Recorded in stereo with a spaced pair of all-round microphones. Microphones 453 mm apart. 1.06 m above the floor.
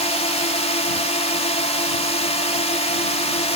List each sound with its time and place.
0.0 s a drone: 15° left (ahead or behind)